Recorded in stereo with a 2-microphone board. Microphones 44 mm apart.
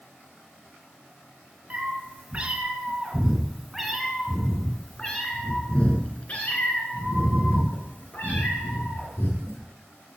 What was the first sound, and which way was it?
A cat meowing, 35° right (ahead or behind).